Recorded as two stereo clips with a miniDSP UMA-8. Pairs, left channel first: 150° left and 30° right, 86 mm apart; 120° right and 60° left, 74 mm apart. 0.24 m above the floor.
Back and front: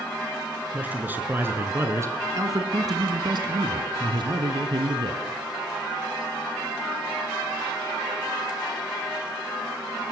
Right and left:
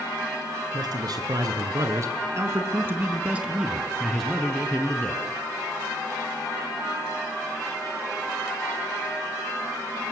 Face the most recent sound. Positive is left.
turn(degrees=-50)